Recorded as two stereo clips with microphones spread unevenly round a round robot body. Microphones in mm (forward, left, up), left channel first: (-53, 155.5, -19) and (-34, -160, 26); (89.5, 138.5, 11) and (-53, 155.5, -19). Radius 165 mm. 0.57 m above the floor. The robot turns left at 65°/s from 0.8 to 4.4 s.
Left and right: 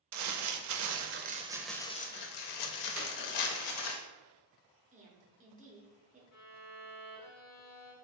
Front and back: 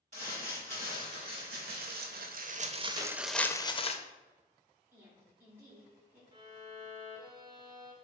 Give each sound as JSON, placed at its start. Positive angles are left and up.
{"t": 0.1, "sound": "crumpling", "azimuth_deg": -120, "distance_m": 0.5}
{"t": 3.0, "sound": "a clap", "azimuth_deg": -175, "distance_m": 1.6}
{"t": 4.9, "sound": "a woman speaking", "azimuth_deg": -145, "distance_m": 0.9}
{"t": 6.3, "sound": "a violin", "azimuth_deg": 120, "distance_m": 1.3}